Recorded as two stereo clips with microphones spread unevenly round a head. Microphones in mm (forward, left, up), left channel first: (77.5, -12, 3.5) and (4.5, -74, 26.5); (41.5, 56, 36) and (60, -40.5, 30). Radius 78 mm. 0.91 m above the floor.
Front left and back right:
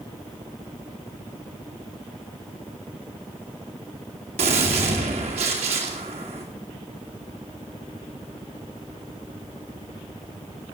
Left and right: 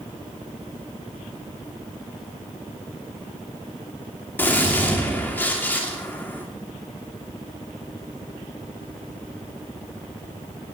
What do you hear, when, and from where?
4.4 s a gunshot: 175° left, 2.5 m